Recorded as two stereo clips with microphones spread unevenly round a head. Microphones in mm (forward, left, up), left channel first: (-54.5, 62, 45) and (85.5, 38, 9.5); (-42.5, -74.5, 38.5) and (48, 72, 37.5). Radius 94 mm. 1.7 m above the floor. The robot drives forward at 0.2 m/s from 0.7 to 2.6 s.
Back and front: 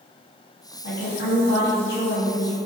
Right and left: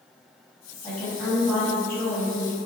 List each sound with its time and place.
0.8 s a woman speaking: 165° left, 1.6 m